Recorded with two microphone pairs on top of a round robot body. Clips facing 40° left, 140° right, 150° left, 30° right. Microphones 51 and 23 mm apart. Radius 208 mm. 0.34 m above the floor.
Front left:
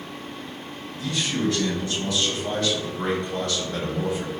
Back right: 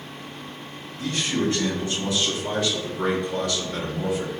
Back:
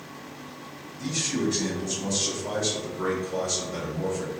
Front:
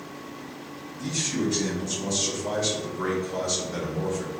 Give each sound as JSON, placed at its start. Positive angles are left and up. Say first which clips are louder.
{"t": 1.0, "sound": "a man speaking", "louder": "back right 1 dB, even", "azimuth_deg": -125, "distance_m": 1.4}